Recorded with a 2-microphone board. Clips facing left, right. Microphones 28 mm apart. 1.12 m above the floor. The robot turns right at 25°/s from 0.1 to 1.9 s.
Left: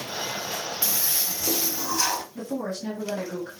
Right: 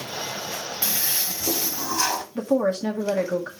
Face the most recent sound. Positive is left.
turn(degrees=-60)  # may be behind; listen again after turning